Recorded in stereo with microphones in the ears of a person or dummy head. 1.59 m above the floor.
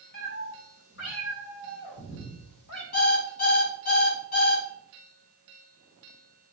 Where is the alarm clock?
40° left (ahead or behind), 5 m.